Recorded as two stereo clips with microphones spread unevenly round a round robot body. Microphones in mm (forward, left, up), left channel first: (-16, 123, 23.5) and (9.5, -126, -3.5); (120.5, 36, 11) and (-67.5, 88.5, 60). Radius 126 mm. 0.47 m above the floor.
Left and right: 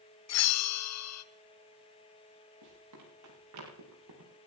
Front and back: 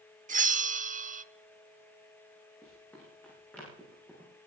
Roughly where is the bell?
Left.